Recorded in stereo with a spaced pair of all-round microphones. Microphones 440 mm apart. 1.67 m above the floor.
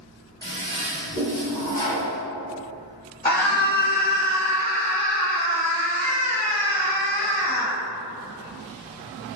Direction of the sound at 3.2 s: 20° left (ahead or behind).